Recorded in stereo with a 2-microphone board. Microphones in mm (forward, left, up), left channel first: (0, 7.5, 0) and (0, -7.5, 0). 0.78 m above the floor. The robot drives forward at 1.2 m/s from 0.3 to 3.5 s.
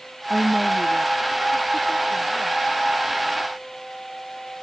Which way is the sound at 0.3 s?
40° right (ahead or behind).